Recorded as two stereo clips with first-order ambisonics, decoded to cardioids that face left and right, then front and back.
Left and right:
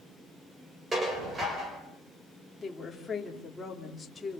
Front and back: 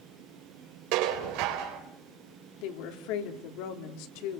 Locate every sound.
0.9 s dishes clattering: 160° right, 4 m
2.6 s a woman speaking: 10° left, 3 m